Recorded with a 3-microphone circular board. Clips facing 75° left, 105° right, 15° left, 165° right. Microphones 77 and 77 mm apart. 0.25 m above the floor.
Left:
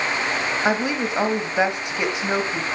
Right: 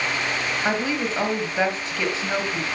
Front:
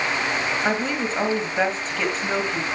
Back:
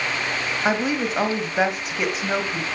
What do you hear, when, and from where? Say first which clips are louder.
0.7 s a woman speaking: left 2 dB, back 1 dB; 125° left, 1.3 m